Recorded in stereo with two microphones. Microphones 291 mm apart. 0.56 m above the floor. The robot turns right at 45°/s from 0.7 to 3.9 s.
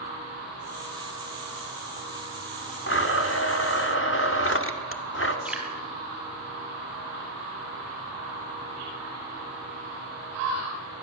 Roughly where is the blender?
Ahead left.